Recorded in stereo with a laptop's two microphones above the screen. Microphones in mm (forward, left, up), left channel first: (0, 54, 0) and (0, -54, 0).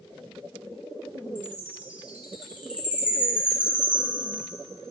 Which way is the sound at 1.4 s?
10° right (ahead or behind).